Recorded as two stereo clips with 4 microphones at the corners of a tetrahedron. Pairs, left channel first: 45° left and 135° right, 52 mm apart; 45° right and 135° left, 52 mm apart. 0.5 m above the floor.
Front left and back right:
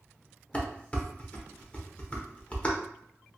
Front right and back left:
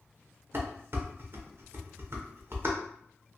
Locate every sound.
0.5 s dishes clattering: 110° left, 0.7 m